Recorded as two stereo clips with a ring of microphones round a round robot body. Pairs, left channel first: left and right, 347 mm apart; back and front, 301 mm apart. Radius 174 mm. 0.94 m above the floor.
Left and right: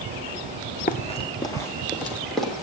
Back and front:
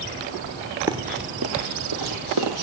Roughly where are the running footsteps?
Ahead left.